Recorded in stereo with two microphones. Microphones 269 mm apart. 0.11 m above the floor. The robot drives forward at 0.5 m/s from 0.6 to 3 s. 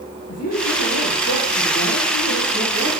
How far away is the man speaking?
About 4 m.